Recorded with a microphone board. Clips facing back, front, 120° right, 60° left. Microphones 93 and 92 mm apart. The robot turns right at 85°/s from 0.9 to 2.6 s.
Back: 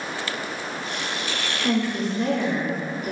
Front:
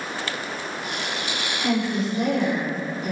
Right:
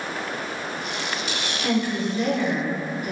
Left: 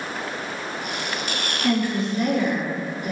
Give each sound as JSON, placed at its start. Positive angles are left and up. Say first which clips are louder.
{"t": 1.6, "sound": "a woman speaking", "louder": "even, left 1 dB", "azimuth_deg": -70, "distance_m": 0.9}